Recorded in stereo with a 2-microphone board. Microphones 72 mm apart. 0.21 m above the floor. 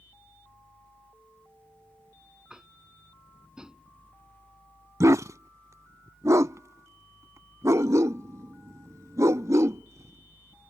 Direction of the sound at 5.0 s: 50° right (ahead or behind).